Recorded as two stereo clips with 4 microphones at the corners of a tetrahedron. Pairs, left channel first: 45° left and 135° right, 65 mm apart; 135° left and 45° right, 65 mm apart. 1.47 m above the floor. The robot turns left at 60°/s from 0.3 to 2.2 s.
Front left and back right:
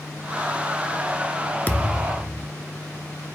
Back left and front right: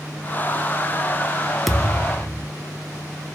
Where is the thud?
50° left, 1.0 m; by 2.5 s 15° left, 1.0 m.